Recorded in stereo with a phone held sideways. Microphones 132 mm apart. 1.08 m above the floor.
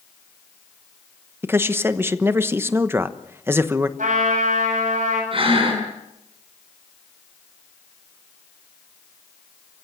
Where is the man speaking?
15° right (ahead or behind), 1.1 m.